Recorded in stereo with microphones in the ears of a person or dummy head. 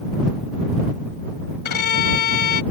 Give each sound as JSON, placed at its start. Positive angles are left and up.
{"t": 1.6, "sound": "a violin", "side_deg": 60}